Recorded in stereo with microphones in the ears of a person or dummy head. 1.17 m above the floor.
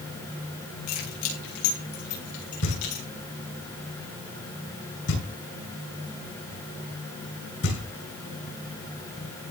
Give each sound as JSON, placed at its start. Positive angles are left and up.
{"t": 0.9, "sound": "keys jangling", "side_deg": 90, "distance_m": 7.5}
{"t": 2.6, "sound": "knocking", "side_deg": 65, "distance_m": 8.5}